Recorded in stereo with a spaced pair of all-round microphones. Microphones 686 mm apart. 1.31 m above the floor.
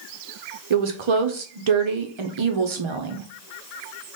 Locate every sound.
0.7 s a woman speaking: 45° right (ahead or behind), 0.6 m